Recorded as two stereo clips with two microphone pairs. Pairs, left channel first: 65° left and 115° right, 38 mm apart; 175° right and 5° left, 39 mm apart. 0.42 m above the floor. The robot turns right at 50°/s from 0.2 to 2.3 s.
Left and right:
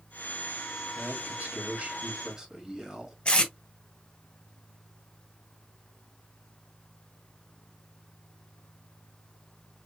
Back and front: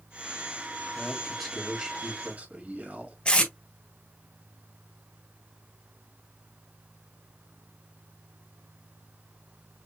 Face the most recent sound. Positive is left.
turn(degrees=125)